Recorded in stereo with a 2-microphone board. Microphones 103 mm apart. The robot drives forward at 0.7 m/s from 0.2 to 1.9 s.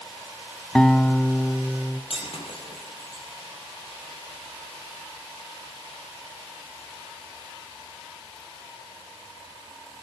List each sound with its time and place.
0.8 s a guitar: 10° left (ahead or behind), 0.6 m; by 2.0 s 5° left (ahead or behind), 1.4 m
2.1 s breaking glass: 65° left (ahead or behind), 3 m